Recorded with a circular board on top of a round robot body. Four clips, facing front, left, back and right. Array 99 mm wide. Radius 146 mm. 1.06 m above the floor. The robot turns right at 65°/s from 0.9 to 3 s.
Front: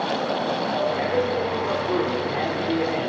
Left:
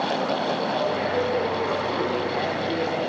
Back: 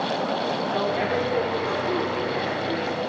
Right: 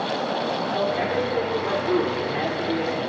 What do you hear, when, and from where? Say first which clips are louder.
0.7 s a man speaking: even, front 2 dB; 155° right, 4.5 m; by 3.1 s 20° right, 4.5 m